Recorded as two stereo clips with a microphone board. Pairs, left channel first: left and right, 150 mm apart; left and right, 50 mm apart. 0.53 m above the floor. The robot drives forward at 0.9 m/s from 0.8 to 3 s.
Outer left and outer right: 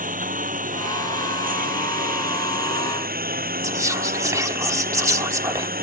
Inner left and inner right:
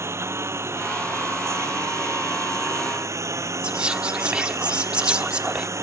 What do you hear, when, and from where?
0.0 s a lawn mower: 65° right (ahead or behind); by 5.8 s 80° right
3.6 s whispering: 20° right (ahead or behind)